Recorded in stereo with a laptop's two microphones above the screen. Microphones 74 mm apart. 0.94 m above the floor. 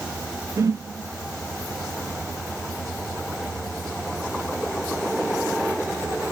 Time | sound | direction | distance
0.6 | a whoosh | 45° right (ahead or behind) | 0.5 m